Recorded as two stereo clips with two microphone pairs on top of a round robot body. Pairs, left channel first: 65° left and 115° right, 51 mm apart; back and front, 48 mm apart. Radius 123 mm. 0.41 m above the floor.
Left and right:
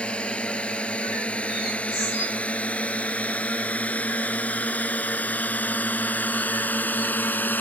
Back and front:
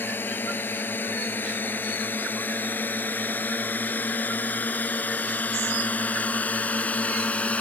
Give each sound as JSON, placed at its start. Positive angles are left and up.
{"t": 0.0, "sound": "a drone", "azimuth_deg": 130}